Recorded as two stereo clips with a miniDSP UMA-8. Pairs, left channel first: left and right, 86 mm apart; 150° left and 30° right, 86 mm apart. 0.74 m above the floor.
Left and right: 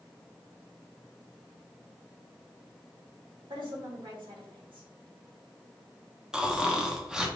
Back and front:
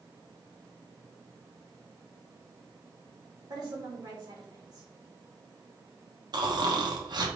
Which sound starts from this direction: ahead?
Snoring, at 6.3 s.